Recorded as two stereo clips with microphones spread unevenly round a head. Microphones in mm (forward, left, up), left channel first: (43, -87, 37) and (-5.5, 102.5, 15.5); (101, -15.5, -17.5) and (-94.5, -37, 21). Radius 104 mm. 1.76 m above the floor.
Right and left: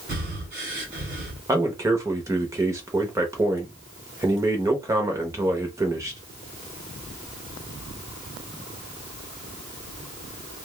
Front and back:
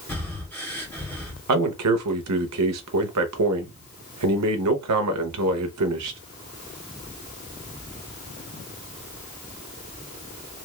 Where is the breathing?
95° left, 1.5 m.